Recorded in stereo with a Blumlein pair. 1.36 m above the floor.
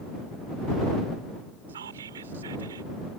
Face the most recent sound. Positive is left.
turn(degrees=-65)